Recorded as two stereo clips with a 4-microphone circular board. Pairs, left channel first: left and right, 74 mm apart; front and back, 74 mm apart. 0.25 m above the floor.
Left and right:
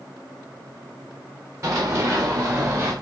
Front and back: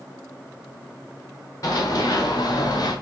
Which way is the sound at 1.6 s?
45° right.